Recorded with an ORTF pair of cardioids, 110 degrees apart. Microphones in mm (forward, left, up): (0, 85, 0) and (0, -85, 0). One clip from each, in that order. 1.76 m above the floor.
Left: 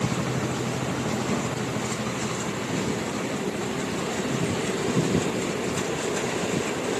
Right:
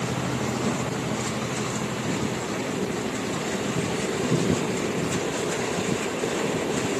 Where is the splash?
No splash in this recording.